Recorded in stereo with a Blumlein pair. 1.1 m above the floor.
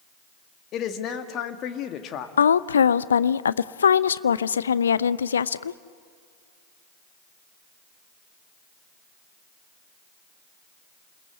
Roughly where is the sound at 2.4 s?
Left.